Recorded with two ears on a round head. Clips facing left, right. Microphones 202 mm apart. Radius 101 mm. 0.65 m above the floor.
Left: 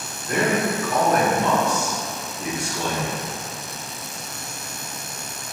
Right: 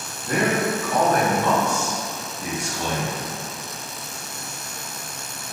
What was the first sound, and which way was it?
A man speaking, 25° right (ahead or behind).